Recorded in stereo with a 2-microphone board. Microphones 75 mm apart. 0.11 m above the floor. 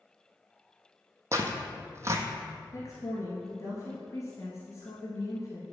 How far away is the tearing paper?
About 1.0 m.